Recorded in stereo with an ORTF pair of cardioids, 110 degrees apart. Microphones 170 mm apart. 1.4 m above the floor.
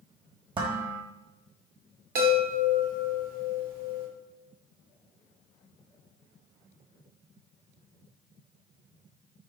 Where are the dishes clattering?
30° right, 1.2 m.